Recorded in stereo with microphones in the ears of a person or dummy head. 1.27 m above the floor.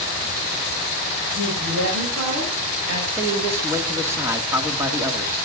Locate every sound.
1.3 s a woman speaking: 75° right (ahead or behind), 7.5 m; by 3.0 s 85° right, 8 m
3.1 s a man speaking: 15° right (ahead or behind), 2 m